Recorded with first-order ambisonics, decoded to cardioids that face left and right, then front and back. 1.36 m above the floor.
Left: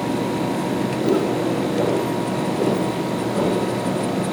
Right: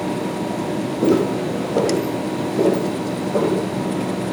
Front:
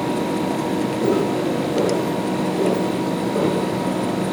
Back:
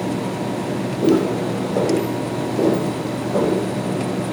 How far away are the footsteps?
About 4 m.